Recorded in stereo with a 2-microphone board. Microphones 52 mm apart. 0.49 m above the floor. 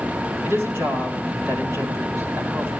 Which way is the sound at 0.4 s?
50° right (ahead or behind).